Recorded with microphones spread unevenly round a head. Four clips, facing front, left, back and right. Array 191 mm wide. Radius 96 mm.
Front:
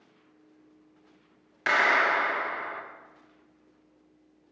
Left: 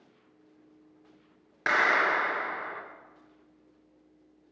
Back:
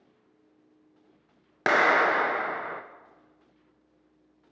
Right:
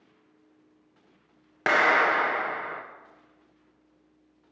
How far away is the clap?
About 0.6 m.